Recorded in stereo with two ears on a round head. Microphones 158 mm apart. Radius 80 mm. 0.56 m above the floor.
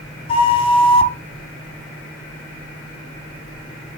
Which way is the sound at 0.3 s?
30° left (ahead or behind).